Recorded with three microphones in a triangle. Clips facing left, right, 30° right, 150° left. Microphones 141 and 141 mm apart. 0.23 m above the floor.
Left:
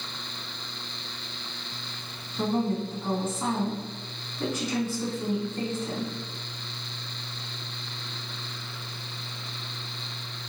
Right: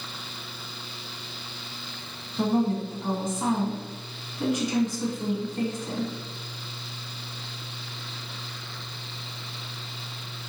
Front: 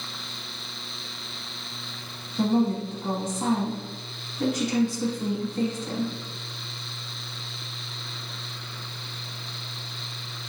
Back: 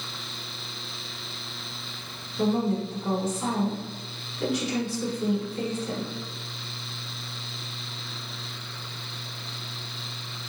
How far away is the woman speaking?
About 1.8 m.